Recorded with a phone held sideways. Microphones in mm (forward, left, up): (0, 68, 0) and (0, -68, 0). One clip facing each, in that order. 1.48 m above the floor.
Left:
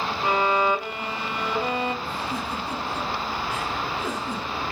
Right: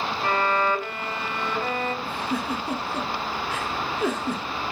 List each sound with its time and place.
0.2 s a violin: 15° left (ahead or behind), 0.6 m
2.0 s a giggle: 65° right (ahead or behind), 1.6 m